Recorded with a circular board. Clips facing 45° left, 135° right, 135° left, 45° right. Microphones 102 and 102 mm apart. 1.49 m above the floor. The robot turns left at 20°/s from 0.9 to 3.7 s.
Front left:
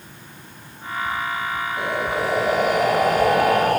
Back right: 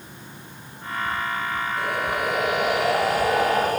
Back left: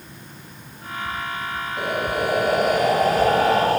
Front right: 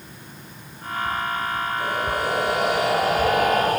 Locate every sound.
1.8 s breathing: 110° left, 8 m; by 3.8 s 75° left, 8 m